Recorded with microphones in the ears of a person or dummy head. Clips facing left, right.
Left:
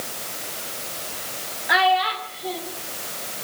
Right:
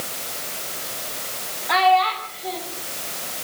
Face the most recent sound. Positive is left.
turn(degrees=15)  # may be behind; listen again after turning